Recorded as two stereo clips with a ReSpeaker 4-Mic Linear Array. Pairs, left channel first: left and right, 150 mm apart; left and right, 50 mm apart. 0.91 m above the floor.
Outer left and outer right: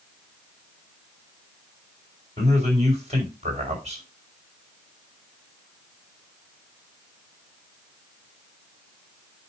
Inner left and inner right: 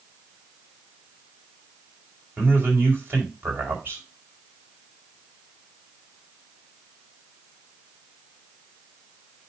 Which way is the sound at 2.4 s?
45° right (ahead or behind).